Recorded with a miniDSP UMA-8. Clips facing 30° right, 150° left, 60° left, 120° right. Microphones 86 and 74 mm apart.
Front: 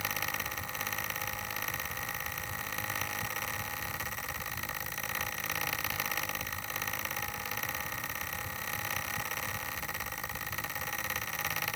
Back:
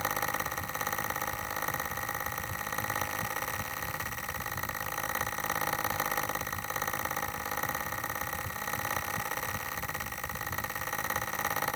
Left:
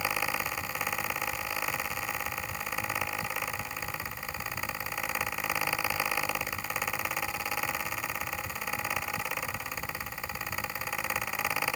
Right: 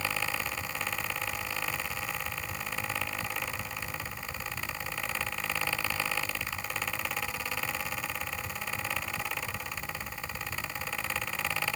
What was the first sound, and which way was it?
Only background noise.